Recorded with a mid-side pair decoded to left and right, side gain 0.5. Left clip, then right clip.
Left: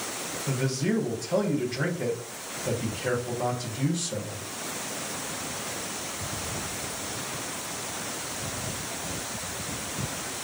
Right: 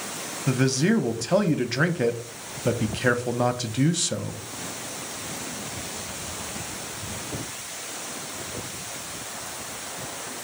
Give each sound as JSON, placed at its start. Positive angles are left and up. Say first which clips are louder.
{"t": 0.5, "sound": "a man speaking", "louder": "right 7 dB", "azimuth_deg": -65, "distance_m": 0.6}